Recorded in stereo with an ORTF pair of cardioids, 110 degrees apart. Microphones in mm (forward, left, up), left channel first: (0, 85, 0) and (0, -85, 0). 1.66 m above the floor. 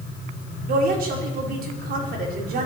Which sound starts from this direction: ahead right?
A woman speaking, at 0.7 s.